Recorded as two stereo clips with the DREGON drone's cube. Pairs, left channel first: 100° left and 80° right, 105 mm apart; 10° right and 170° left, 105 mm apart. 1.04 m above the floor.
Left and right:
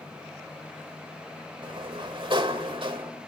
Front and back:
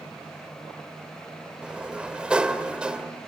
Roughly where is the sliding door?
Right.